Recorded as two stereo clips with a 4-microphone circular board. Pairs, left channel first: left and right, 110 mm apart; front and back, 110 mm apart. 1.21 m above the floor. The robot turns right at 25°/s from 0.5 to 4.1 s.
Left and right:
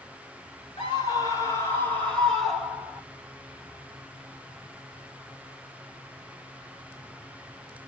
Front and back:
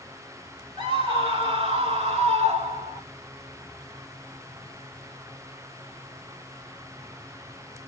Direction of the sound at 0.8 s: 135° left.